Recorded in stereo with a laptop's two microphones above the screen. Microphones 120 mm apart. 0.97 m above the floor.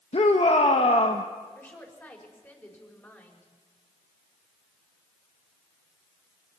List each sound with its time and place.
0.1 s a shout: 55° left (ahead or behind), 1.1 m
1.6 s a woman speaking: 15° left (ahead or behind), 5 m